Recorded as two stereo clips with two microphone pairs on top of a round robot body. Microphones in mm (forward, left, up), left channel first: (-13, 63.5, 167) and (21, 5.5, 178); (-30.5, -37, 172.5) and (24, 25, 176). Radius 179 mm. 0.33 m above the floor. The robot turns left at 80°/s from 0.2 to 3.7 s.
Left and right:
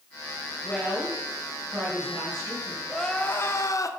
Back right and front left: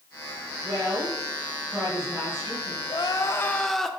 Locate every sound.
0.6 s a woman speaking: 65° left, 3 m; by 2.8 s 110° right, 3 m
2.9 s crying: 150° right, 0.5 m; by 3.9 s 145° left, 0.5 m